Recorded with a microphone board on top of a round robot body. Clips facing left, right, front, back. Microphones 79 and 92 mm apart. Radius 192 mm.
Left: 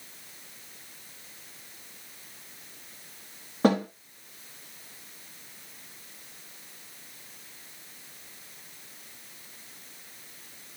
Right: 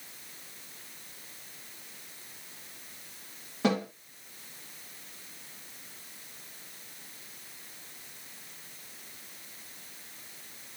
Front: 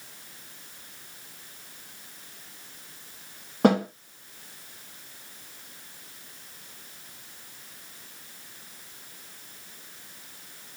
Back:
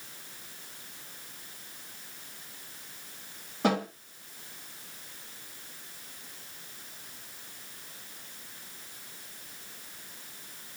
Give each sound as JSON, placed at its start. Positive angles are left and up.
{"t": 3.6, "sound": "a snare drum", "azimuth_deg": 40, "distance_m": 3.5}